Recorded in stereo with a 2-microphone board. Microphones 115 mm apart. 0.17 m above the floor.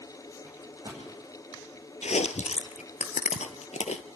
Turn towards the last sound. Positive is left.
turn(degrees=75)  # may be behind; listen again after turning